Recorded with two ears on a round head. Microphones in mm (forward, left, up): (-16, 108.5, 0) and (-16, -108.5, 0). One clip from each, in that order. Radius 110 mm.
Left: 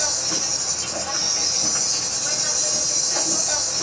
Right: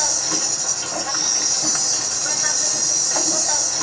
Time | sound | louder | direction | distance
0.0 | an insect | right 2 dB | 35° right (ahead or behind) | 2 m